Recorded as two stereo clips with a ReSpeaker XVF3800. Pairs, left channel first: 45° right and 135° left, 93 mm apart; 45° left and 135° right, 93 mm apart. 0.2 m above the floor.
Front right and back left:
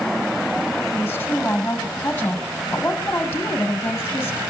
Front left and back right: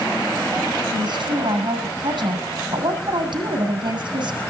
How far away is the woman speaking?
About 7 m.